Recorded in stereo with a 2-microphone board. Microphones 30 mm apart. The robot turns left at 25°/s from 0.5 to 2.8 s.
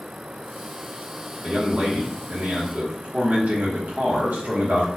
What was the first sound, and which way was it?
A man speaking, 60° right.